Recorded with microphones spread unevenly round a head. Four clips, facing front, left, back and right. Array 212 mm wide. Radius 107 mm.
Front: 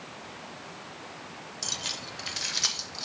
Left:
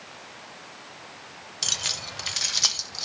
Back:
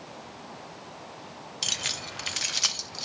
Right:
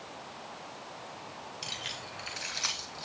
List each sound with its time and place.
1.6 s keys jangling: 135° left, 0.6 m; by 3.1 s 115° left, 2 m